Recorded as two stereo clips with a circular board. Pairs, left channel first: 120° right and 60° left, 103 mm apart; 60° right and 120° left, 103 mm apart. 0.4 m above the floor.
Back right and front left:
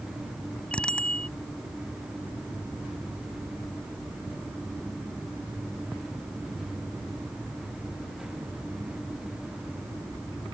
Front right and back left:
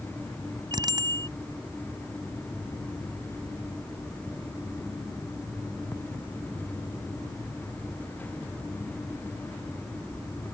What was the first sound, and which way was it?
A bicycle bell, 160° left.